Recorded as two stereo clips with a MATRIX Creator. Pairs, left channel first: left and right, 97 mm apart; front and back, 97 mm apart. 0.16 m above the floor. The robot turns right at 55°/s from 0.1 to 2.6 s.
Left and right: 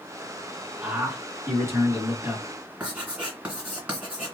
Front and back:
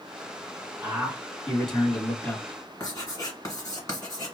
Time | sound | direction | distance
0.8 | a man speaking | 130° right | 1.5 m
2.8 | writing | 20° right | 2.0 m